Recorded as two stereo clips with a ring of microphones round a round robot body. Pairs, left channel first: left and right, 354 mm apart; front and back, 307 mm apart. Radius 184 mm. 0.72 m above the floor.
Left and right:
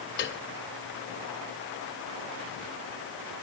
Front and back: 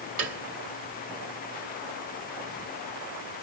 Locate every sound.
0.2 s a piano: 150° left, 1.4 m